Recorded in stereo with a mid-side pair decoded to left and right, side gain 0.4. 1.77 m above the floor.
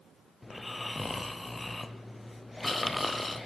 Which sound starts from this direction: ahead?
Snoring, at 0.4 s.